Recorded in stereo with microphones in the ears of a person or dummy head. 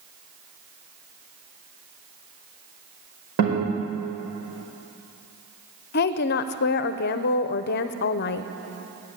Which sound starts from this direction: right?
A guitar, at 3.4 s.